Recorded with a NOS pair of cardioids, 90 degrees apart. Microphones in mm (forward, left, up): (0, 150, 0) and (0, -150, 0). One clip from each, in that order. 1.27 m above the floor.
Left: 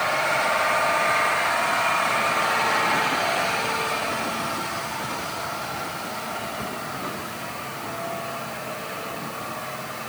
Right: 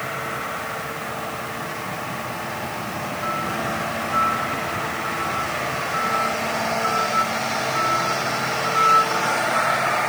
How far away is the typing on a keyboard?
I don't hear typing on a keyboard.